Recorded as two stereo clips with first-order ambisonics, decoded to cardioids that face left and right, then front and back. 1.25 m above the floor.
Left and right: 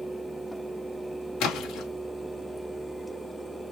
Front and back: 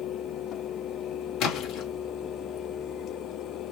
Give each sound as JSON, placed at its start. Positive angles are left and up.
{"t": 1.4, "sound": "a splash", "azimuth_deg": 40, "distance_m": 1.9}